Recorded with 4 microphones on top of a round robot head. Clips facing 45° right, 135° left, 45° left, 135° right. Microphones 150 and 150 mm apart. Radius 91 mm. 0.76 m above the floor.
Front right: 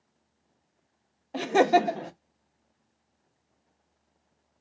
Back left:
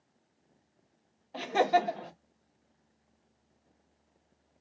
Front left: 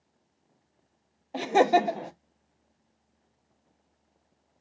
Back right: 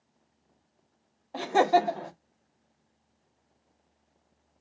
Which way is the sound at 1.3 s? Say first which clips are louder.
Front right 5 dB, front left 1 dB; 25° right.